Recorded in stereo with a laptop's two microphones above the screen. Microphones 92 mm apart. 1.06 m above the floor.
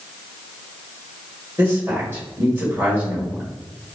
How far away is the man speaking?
About 1.8 m.